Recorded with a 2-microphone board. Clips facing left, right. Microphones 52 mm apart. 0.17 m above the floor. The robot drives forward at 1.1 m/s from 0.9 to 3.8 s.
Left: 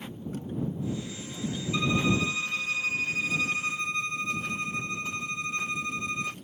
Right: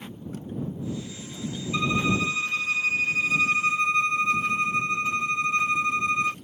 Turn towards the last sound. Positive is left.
turn(degrees=-40)  # may be behind; listen again after turning